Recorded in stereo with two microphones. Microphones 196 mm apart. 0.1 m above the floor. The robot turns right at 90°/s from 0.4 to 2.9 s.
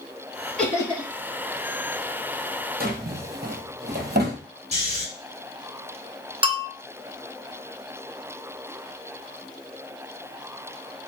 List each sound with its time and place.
0.6 s laughter: 5° left, 2.5 m; by 1.1 s 50° left, 2.5 m
2.8 s a drawer: 50° right (ahead or behind), 0.8 m; by 4.4 s 60° right (ahead or behind), 0.8 m
4.7 s snoring: 35° right (ahead or behind), 1.8 m
6.4 s a bell: 30° right (ahead or behind), 0.5 m